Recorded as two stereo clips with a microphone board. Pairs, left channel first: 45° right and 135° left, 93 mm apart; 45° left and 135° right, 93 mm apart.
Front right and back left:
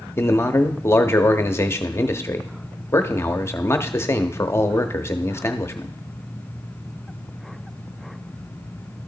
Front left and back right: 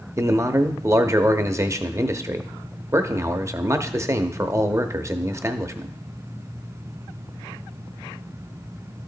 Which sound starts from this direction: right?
A man speaking, at 0.2 s.